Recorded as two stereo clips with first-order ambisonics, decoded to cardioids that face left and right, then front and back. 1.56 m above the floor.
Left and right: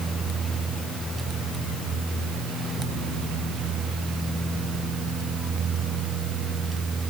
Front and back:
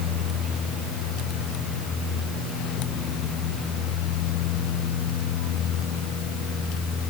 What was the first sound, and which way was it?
Only background noise.